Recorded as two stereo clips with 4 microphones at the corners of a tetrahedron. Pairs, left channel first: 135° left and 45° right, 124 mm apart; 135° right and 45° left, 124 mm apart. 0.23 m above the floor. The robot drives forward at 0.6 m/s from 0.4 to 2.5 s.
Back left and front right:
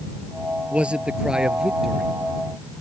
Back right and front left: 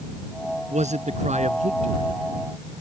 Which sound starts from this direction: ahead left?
A man speaking, at 0.7 s.